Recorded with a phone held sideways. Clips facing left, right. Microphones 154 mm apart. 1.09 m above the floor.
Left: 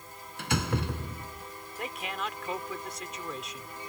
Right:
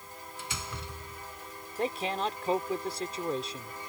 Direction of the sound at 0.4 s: 65° left (ahead or behind).